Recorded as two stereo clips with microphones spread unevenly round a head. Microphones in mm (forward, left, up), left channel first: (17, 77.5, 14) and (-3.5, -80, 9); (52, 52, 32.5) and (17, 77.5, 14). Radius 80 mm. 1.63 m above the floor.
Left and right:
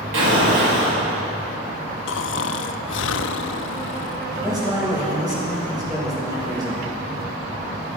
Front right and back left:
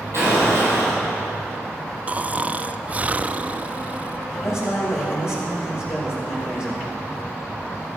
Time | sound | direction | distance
0.1 | an explosion | 95° right | 6 m
2.1 | snoring | 75° left | 0.5 m
4.3 | a man speaking | 30° right | 6 m